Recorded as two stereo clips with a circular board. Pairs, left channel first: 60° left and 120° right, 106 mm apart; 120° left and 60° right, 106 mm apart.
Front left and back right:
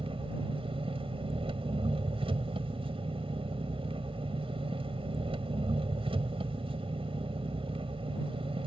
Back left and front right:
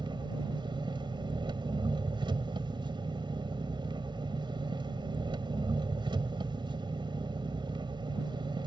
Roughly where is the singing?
I don't hear singing.